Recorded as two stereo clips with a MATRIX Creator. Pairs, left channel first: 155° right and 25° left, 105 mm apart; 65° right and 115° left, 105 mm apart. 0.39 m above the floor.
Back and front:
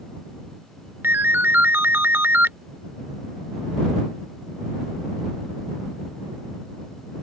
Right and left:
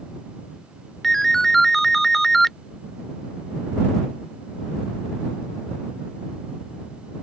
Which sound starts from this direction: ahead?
A ringtone, at 1.0 s.